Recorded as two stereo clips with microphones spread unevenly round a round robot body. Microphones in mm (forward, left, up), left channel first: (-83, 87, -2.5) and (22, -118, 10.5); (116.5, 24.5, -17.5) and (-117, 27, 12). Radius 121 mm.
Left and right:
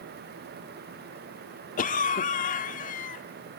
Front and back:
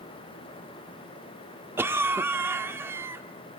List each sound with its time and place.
1.8 s a cough: 95° left, 0.9 m